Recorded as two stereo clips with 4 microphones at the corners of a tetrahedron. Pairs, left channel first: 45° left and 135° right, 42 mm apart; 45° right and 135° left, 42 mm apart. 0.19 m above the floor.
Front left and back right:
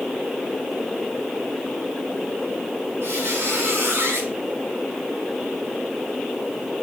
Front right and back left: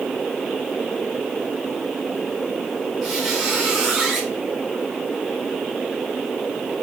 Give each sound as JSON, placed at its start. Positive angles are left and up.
{"t": 3.0, "sound": "a squeak", "azimuth_deg": -155, "distance_m": 4.5}